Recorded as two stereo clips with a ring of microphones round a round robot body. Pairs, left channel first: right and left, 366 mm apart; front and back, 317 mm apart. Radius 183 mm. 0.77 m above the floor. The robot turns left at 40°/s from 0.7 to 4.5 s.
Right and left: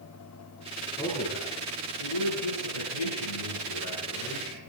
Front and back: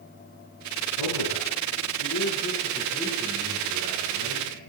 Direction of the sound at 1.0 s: 10° right.